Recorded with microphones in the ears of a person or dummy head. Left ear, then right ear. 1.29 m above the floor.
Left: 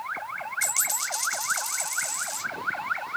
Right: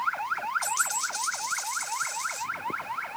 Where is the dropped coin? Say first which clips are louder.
Even; 25° left (ahead or behind), 1.0 m.